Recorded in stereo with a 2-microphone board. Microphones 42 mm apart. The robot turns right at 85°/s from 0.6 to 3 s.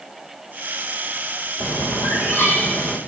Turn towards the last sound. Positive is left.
turn(degrees=160)